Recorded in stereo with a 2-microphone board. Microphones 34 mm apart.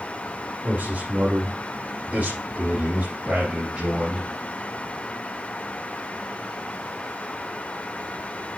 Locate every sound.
0.6 s a man speaking: 55° right (ahead or behind), 2.5 m; by 4.3 s 40° right (ahead or behind), 2.5 m